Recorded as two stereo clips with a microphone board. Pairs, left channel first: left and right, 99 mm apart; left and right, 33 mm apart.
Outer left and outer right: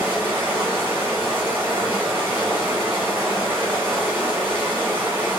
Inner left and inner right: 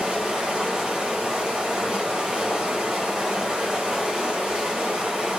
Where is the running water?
20° right (ahead or behind), 1.6 m.